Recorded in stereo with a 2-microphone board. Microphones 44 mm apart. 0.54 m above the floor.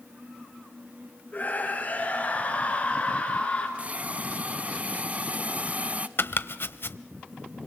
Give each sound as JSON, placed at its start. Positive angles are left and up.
{"t": 1.3, "sound": "a scream", "side_deg": 35, "distance_m": 8.5}
{"t": 3.8, "sound": "a hiss", "side_deg": -30, "distance_m": 0.7}
{"t": 6.2, "sound": "chopping", "side_deg": 55, "distance_m": 0.8}